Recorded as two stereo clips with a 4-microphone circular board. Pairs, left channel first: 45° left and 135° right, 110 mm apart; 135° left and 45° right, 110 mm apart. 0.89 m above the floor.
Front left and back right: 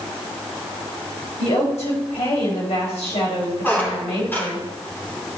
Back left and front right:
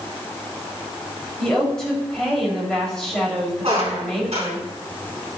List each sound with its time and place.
1.4 s a woman speaking: 50° left, 4 m
3.6 s a squeak: 25° right, 2.5 m